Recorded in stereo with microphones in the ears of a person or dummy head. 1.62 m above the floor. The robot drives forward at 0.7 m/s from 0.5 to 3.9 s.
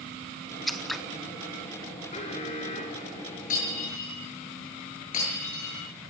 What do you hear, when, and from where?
0.7 s scissors: centre (ahead or behind), 0.8 m
2.1 s an alarm: 45° left (ahead or behind), 5.5 m; by 3.4 s 50° left (ahead or behind), 5 m
3.5 s breaking glass: 40° left (ahead or behind), 9.5 m